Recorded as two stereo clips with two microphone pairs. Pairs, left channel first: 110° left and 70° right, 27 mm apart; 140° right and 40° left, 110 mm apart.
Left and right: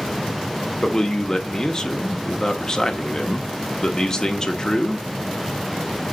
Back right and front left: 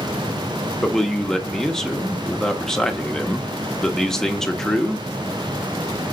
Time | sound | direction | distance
0.8 | a man speaking | 145° left | 0.9 m